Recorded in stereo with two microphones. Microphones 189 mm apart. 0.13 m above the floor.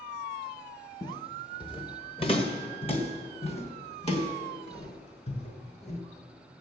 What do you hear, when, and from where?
1.0 s footsteps: 20° left (ahead or behind), 1.1 m; by 6.0 s 35° left (ahead or behind), 4 m